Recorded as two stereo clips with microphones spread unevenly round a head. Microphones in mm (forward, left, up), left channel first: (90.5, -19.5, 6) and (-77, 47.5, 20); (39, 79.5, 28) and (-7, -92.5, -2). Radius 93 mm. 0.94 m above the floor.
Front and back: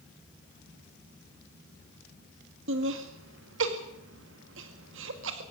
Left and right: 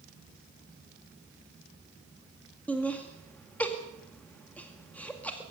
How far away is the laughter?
About 1.9 m.